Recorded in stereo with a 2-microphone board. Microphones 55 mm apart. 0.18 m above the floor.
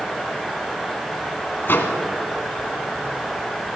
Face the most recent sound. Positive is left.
turn(degrees=45)  # may be behind; listen again after turning